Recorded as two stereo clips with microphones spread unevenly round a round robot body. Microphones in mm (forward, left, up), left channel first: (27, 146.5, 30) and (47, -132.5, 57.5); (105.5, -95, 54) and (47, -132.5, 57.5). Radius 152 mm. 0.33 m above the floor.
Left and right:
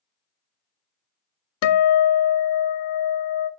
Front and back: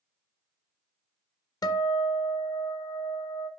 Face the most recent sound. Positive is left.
turn(degrees=65)